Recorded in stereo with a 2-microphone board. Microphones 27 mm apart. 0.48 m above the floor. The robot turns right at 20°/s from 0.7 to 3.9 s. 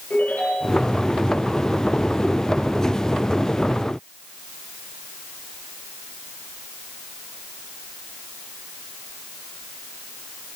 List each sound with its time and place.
0.1 s a ringtone: 85° left, 8 m